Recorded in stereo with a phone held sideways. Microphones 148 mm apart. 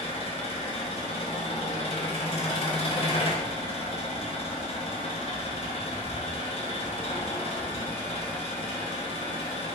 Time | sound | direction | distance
0.0 | an engine running | 40° left (ahead or behind) | 0.7 m